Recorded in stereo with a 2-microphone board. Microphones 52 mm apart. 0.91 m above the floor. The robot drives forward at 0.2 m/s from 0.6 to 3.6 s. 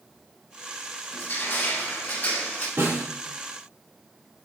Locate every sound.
1.1 s crushing: 45° left (ahead or behind), 0.7 m; by 2.7 s 30° left (ahead or behind), 0.9 m
2.8 s a snare drum: 70° right (ahead or behind), 2 m